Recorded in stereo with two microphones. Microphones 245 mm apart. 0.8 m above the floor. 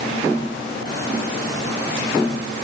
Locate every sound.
Only background noise.